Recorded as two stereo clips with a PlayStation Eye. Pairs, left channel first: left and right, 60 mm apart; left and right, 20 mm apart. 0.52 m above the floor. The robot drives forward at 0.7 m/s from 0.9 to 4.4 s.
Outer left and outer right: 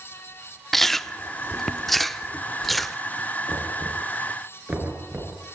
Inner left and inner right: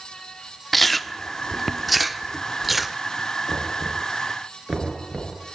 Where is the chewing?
5° left (ahead or behind), 0.7 m; by 3.0 s centre (ahead or behind), 1.4 m.